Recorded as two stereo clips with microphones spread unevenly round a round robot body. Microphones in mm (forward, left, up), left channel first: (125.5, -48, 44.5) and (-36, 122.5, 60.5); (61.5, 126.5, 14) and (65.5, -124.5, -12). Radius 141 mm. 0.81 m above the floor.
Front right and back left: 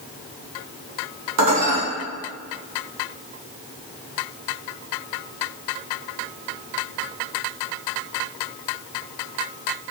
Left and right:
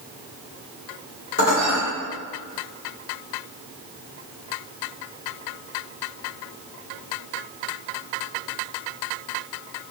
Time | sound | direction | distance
1.4 | dishes clattering | 145° left | 1.2 m